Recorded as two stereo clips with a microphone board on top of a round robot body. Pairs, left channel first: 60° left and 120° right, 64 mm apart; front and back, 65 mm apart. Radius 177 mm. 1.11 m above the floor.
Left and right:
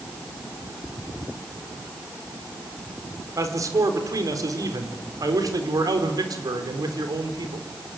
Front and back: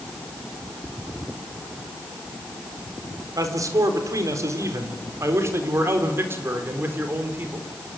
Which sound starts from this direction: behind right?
A man speaking, at 3.4 s.